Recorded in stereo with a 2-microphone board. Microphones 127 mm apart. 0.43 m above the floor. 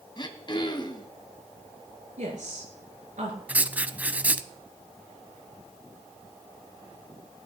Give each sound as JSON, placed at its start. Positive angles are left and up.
{"t": 0.2, "sound": "throat clearing", "side_deg": 35, "distance_m": 1.6}
{"t": 2.2, "sound": "a woman speaking", "side_deg": -70, "distance_m": 6.0}
{"t": 3.5, "sound": "writing", "side_deg": -10, "distance_m": 0.7}